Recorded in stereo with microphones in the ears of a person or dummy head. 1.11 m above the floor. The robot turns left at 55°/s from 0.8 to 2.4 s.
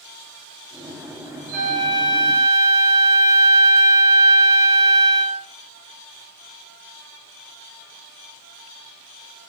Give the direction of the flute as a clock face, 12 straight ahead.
6 o'clock.